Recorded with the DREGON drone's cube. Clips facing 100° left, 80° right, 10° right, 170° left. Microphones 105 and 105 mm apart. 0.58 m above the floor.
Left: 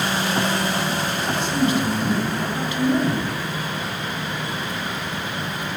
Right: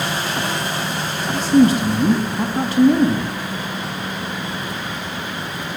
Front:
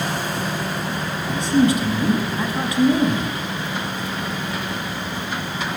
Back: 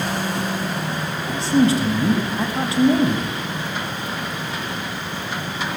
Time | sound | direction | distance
1.3 | a man speaking | 130° right | 4.5 m